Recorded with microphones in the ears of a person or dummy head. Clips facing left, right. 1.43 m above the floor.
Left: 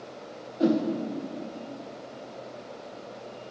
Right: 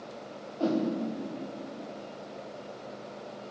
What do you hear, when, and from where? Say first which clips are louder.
0.6 s a whoosh: left 4 dB; 20° left (ahead or behind), 0.6 m